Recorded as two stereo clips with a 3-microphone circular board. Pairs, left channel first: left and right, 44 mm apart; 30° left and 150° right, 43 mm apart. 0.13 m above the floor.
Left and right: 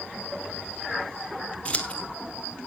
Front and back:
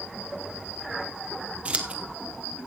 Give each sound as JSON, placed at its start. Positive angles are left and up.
{"t": 1.6, "sound": "scissors", "azimuth_deg": 150, "distance_m": 1.7}